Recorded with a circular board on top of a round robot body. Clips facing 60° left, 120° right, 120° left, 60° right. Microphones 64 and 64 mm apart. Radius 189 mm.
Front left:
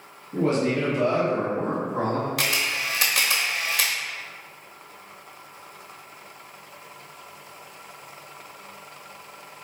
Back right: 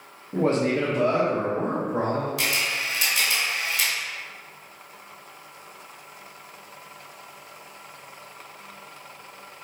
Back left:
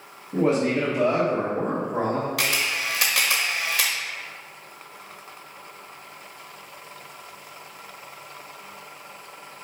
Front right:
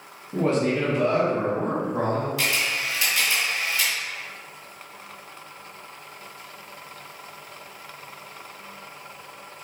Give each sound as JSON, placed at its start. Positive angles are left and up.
{"t": 0.3, "sound": "a man speaking", "azimuth_deg": -155, "distance_m": 1.0}
{"t": 2.4, "sound": "a camera shutter", "azimuth_deg": 95, "distance_m": 0.8}